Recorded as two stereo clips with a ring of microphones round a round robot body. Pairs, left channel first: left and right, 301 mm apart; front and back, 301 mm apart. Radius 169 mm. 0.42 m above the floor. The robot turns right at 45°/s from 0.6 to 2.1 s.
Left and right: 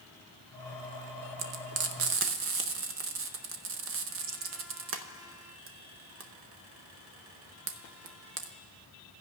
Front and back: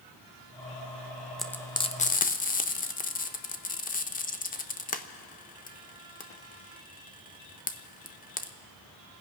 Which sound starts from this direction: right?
Frying, at 1.4 s.